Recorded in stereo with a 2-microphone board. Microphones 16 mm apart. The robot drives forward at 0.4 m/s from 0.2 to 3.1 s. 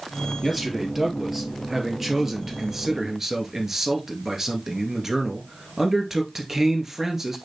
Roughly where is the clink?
I don't hear a clink.